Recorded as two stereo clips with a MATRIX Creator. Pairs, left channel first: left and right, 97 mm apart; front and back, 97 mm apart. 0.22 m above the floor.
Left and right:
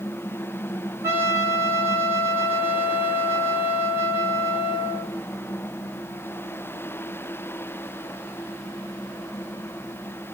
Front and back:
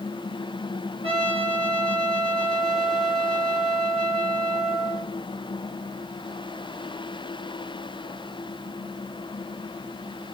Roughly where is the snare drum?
No snare drum in this recording.